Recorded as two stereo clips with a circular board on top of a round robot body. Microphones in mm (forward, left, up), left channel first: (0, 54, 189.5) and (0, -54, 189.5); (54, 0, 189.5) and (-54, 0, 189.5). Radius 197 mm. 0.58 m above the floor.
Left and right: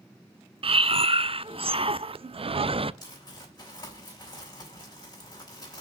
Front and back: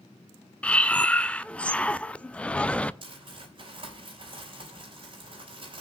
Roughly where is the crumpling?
Behind left.